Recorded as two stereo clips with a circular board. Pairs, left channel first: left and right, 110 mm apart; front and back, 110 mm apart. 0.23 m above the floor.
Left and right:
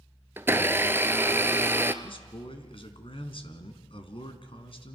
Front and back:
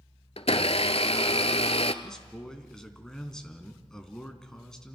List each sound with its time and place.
0.4 s a blender: 20° right, 1.1 m
2.0 s a man speaking: 85° left, 2.5 m